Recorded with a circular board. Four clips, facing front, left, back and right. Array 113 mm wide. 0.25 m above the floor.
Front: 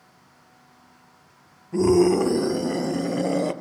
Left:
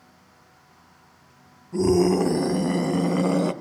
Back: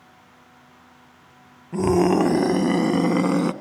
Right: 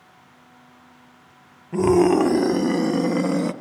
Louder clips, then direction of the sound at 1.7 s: Right 3 dB, front 1 dB; 115° right.